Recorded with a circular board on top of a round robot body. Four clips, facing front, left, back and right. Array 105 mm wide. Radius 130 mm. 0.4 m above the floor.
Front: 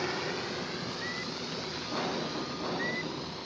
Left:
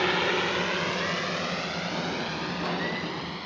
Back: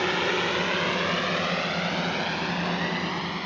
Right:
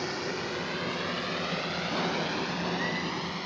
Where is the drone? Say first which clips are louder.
Left 7 dB, back 8 dB; 130° left; by 3.5 s 175° right.